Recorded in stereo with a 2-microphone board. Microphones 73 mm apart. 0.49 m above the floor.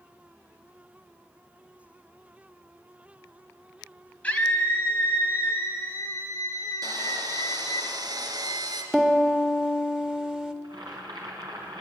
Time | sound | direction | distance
4.2 | a scream | 20° left (ahead or behind) | 3.5 m
6.8 | sawing | 65° right (ahead or behind) | 3 m
8.9 | a piano | 10° right (ahead or behind) | 1.7 m
10.6 | boiling | 75° right (ahead or behind) | 4.5 m